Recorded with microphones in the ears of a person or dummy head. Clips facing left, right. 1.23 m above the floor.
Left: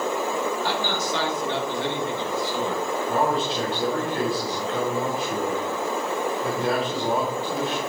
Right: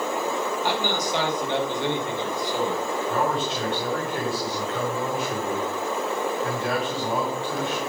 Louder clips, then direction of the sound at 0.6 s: Right 1 dB; 15° right (ahead or behind).